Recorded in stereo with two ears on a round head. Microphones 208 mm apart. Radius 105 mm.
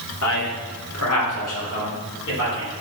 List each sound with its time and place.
0.2 s a man speaking: 70° left (ahead or behind), 2 m; by 2.7 s 50° left (ahead or behind), 3 m